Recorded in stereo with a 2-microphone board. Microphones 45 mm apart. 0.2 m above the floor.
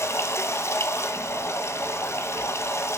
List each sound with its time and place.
0.0 s running water: 75° left (ahead or behind), 1.5 m